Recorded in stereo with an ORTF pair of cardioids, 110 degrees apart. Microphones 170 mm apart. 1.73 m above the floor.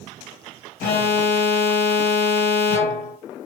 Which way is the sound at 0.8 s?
60° left.